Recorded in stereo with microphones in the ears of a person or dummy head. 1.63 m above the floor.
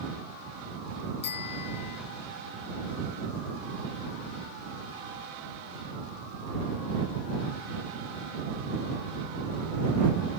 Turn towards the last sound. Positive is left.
turn(degrees=55)  # may be behind; listen again after turning